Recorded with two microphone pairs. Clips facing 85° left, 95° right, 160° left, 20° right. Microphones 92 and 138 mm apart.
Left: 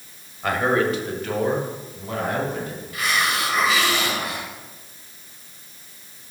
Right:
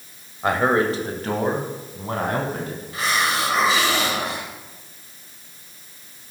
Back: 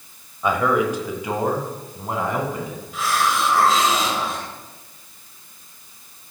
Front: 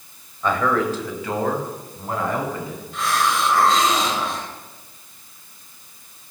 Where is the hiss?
115° right, 1.6 m.